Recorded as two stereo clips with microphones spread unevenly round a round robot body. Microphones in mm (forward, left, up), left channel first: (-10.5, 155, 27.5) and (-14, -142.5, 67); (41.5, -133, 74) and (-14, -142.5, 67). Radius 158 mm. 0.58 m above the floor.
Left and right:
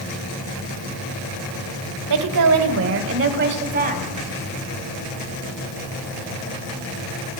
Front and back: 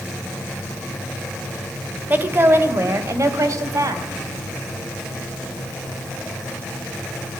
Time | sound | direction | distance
2.1 | a woman speaking | 115° right | 2 m